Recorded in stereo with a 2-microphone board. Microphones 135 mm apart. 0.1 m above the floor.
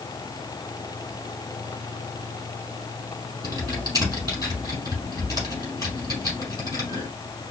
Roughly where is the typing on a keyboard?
Right.